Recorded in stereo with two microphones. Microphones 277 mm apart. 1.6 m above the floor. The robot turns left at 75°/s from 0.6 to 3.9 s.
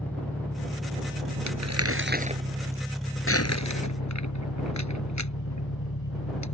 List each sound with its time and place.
0.0 s an engine running: 5° left; by 6.5 s 120° left
1.5 s crumpling: 85° right; by 6.5 s 80° left